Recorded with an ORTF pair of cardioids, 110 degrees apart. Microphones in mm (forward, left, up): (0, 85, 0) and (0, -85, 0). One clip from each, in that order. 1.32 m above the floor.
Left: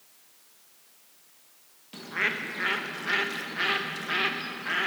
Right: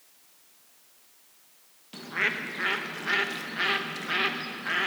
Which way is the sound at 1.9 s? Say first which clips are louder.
Even; 5° right.